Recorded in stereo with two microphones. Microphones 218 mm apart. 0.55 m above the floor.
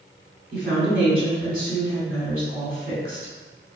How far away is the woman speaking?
About 2.0 m.